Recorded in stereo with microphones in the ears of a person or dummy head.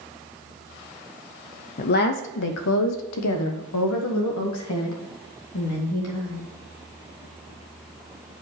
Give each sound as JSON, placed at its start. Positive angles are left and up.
{"t": 1.8, "sound": "a woman speaking", "side_deg": 40, "distance_m": 0.5}